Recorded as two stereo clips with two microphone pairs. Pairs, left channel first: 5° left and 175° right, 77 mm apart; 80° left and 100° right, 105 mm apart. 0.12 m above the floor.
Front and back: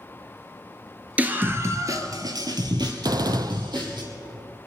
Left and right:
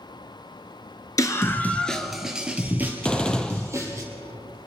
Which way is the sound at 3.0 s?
160° left.